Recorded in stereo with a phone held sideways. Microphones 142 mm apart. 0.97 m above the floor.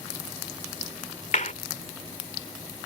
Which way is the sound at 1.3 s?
60° left (ahead or behind).